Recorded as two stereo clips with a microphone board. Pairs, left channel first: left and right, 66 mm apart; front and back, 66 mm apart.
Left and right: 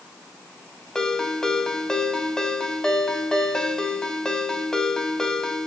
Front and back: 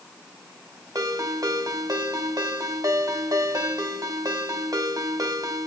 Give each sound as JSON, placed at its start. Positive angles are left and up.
{"t": 0.9, "sound": "a ringtone", "azimuth_deg": 170, "distance_m": 1.4}